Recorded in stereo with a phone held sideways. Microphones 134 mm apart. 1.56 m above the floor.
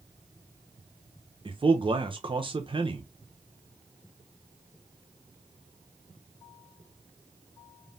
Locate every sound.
1.4 s a man speaking: 35° right (ahead or behind), 0.6 m